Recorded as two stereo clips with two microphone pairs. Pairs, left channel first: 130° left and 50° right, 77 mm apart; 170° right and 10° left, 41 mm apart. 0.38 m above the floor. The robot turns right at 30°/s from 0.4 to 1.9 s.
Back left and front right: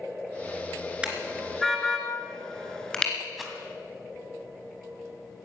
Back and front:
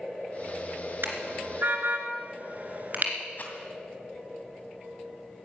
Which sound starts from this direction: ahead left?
A car horn, at 1.0 s.